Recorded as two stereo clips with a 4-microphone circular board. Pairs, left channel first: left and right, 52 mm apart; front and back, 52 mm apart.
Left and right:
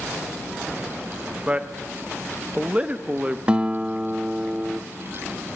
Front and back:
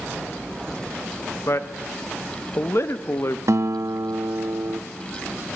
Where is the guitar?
160° right, 0.5 m.